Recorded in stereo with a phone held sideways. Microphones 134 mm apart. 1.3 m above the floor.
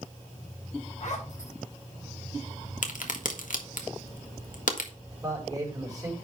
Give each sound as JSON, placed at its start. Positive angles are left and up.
{"t": 1.0, "sound": "a zipper", "side_deg": 60, "distance_m": 5.0}
{"t": 2.8, "sound": "a crack", "side_deg": 75, "distance_m": 1.6}
{"t": 5.1, "sound": "a man speaking", "side_deg": -25, "distance_m": 4.0}